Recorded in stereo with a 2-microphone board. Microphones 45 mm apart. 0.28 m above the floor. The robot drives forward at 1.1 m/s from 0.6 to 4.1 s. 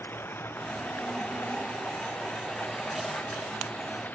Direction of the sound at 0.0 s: 50° left (ahead or behind).